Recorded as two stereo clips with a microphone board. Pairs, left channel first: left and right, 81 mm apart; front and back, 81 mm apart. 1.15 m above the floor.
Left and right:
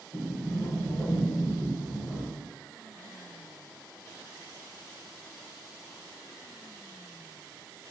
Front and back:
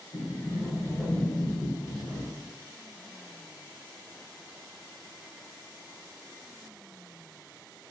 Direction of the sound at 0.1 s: 60° left.